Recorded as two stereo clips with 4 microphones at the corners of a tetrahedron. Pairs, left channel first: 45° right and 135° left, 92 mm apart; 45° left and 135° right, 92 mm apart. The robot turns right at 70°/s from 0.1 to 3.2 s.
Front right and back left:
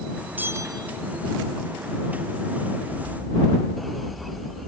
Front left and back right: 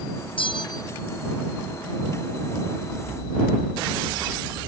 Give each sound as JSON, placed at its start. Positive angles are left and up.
{"t": 0.4, "sound": "a bell", "azimuth_deg": 65}